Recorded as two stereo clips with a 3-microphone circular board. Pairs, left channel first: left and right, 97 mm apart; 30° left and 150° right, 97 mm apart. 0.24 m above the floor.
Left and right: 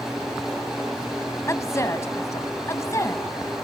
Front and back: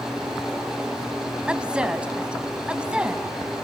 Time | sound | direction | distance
1.5 | a woman speaking | 135° left | 1.5 m